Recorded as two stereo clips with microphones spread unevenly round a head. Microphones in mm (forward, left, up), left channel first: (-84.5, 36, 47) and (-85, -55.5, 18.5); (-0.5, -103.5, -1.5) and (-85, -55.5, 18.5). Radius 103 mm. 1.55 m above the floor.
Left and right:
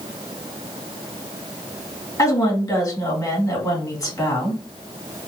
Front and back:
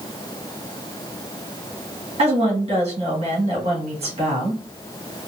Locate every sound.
2.2 s a woman speaking: 135° left, 2.5 m